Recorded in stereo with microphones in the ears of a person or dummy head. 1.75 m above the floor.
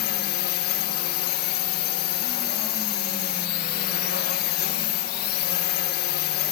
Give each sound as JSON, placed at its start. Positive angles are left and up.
{"t": 0.0, "sound": "a drone", "side_deg": 50}